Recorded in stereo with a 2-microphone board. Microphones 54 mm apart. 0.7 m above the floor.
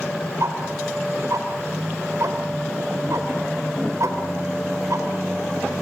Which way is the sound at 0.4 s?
70° right (ahead or behind).